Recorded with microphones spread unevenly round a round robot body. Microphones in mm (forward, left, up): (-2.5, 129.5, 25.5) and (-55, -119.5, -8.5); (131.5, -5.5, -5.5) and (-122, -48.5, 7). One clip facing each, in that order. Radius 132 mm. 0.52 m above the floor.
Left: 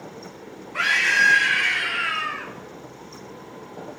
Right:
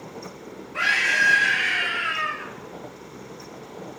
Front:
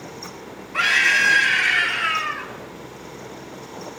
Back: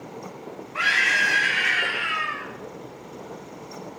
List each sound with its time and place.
0.7 s a scream: 5° right, 6 m; by 2.5 s 10° left, 6 m